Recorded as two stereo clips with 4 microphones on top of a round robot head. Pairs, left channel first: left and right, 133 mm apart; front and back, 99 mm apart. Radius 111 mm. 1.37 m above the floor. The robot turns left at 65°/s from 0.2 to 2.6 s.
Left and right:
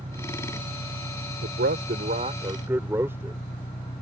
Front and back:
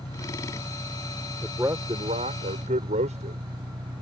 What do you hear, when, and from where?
0.0 s an engine running: 50° right; by 4.0 s 155° left
1.4 s a man speaking: 90° right; by 3.4 s 165° right